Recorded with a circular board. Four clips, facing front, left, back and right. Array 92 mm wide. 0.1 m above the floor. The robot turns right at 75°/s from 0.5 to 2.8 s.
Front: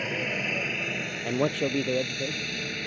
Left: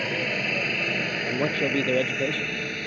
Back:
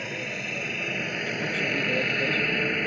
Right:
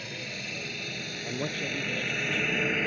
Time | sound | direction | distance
0.0 | a helicopter | 75° left | ?
1.2 | a man speaking | 20° left | ?